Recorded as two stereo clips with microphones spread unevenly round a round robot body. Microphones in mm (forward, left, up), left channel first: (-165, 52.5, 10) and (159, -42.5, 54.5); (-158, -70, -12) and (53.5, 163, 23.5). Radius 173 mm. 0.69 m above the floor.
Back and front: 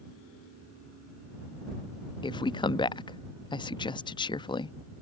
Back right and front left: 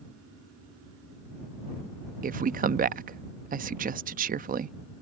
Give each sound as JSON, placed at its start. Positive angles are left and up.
{"t": 2.2, "sound": "a woman speaking", "azimuth_deg": 105}